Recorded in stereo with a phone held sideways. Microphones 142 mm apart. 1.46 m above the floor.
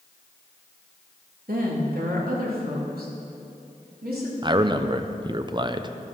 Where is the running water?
No running water in this recording.